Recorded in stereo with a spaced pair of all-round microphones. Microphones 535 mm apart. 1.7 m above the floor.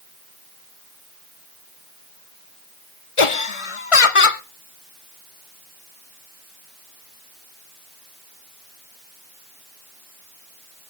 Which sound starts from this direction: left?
Laughter, at 3.2 s.